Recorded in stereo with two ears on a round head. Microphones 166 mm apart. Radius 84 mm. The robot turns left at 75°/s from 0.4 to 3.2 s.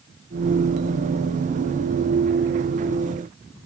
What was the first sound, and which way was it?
Only background noise.